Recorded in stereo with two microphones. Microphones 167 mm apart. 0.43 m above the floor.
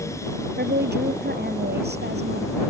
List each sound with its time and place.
0.6 s a woman speaking: 85° right